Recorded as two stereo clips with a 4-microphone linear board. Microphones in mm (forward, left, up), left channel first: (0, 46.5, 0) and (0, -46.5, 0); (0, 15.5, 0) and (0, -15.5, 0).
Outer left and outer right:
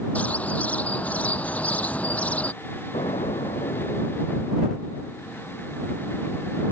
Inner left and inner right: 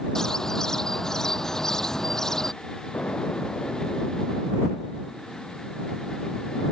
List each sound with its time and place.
0.1 s a bird: 15° left (ahead or behind)
2.9 s an explosion: 85° left